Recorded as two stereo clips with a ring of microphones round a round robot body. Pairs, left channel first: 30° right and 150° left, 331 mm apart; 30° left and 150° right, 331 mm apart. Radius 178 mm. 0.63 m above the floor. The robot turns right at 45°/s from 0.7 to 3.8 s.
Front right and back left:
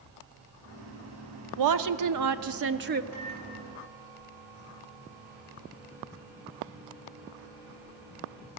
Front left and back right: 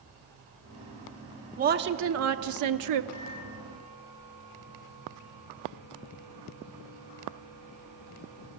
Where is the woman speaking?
145° left, 1.1 m; by 3.0 s 150° right, 1.1 m.